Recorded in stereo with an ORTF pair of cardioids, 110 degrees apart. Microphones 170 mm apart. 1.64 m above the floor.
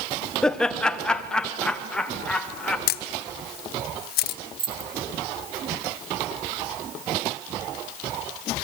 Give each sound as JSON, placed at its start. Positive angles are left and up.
{"t": 0.4, "sound": "laughter", "azimuth_deg": 5, "distance_m": 1.4}
{"t": 2.9, "sound": "a camera shutter", "azimuth_deg": 65, "distance_m": 1.1}
{"t": 4.6, "sound": "keys jangling", "azimuth_deg": -30, "distance_m": 3.5}